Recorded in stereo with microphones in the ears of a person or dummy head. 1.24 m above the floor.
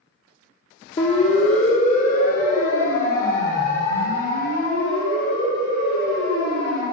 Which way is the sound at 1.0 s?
40° left (ahead or behind).